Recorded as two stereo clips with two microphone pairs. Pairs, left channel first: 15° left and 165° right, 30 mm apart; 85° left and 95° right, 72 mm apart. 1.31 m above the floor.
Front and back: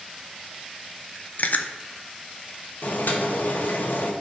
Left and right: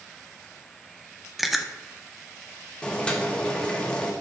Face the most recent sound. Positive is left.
turn(degrees=10)